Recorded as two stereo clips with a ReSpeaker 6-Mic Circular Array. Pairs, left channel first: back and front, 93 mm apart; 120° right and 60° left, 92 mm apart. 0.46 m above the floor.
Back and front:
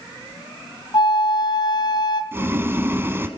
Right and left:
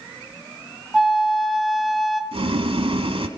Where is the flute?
150° left, 1.5 m.